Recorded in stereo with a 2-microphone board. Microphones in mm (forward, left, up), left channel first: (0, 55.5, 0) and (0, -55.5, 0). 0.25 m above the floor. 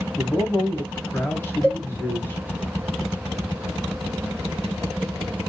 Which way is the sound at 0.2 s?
20° left (ahead or behind).